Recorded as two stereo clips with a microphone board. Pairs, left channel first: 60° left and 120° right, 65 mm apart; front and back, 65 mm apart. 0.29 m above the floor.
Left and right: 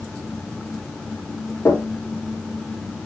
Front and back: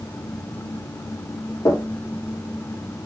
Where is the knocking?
5° left, 5 m.